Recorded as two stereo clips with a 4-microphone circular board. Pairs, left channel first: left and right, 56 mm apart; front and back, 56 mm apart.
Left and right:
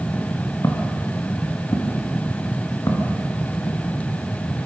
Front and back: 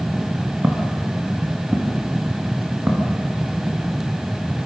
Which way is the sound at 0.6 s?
120° left.